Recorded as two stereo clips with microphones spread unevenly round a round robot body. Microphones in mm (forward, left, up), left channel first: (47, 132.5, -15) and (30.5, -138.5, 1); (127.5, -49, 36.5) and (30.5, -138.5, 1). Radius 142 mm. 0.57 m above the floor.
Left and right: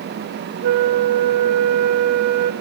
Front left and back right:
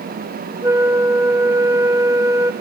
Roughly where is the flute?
Right.